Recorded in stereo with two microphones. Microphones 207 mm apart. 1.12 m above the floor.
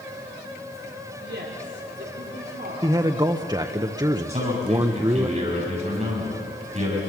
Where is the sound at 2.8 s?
20° right (ahead or behind), 0.8 m.